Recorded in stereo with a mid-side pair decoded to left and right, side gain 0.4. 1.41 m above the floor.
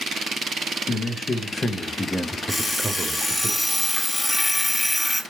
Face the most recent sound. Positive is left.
turn(degrees=25)